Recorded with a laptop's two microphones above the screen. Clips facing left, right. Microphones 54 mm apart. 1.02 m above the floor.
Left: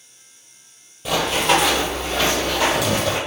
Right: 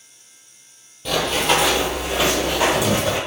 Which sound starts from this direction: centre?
Running footsteps, at 1.1 s.